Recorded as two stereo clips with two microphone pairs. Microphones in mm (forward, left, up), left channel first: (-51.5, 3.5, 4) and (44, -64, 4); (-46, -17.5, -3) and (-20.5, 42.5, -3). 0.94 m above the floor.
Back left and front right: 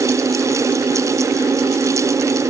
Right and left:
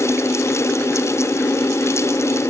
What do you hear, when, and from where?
Only background noise.